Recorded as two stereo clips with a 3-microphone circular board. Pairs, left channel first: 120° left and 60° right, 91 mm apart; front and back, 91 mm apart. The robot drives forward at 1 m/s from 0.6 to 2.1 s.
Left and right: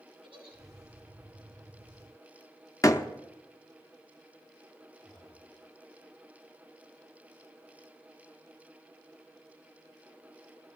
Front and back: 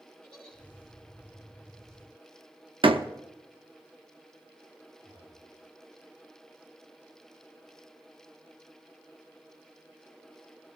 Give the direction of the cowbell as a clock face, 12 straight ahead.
I don't hear a cowbell.